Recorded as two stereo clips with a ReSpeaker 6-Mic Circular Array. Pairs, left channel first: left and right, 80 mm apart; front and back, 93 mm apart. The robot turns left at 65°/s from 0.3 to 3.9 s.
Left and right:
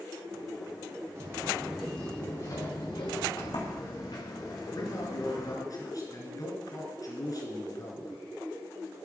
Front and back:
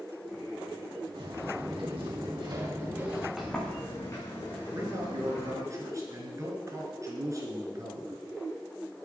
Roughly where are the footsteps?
Behind right.